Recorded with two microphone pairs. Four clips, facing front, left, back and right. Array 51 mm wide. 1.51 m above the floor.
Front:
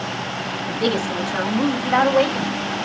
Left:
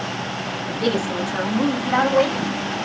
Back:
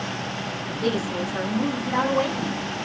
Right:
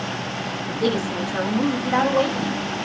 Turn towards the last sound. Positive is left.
turn(degrees=20)